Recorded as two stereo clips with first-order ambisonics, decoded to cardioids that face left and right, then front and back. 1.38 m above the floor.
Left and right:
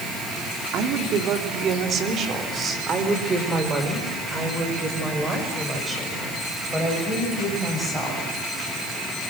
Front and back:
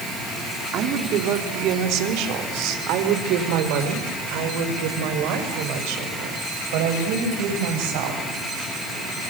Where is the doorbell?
I don't hear a doorbell.